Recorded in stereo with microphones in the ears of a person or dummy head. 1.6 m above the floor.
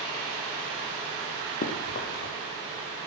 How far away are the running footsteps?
About 3.5 m.